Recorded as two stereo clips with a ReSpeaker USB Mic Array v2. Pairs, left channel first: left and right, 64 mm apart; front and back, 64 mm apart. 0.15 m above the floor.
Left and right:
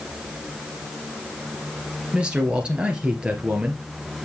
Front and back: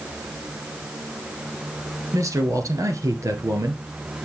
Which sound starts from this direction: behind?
A man speaking, at 2.1 s.